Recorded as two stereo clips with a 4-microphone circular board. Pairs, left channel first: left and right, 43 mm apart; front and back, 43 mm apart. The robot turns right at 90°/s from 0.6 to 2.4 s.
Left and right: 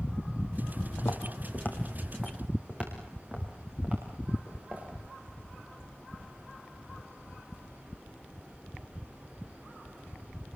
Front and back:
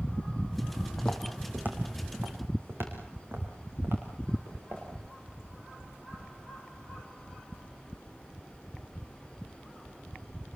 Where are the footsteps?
70° left, 3.5 m; by 4.8 s 150° right, 9.5 m.